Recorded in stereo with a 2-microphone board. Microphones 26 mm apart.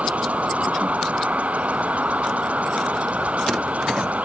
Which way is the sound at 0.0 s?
65° right (ahead or behind).